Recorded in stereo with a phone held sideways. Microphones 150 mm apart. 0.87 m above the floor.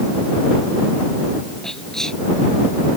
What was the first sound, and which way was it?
Whispering, 5° left (ahead or behind).